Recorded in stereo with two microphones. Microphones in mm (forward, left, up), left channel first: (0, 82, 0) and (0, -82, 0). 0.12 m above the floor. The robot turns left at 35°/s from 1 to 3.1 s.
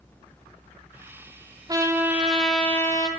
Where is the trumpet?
155° right, 2.5 m; by 3.1 s 155° left, 2.5 m.